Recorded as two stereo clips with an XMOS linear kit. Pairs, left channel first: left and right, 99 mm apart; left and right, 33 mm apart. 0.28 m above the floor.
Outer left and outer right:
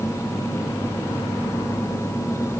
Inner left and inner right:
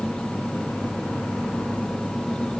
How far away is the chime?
No chime in this recording.